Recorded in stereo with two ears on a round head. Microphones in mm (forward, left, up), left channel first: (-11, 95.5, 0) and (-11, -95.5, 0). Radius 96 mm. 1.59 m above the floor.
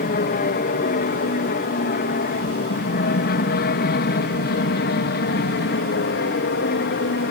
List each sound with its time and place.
0.0 s an aircraft: 45° left (ahead or behind); by 7.3 s 55° left (ahead or behind)